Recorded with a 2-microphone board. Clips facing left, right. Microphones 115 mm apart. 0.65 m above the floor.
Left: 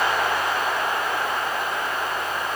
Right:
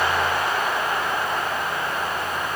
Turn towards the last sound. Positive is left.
No sound to turn to.